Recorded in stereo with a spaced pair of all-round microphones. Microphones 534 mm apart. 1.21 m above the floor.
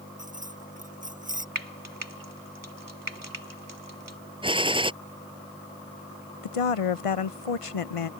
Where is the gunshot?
10° right (ahead or behind).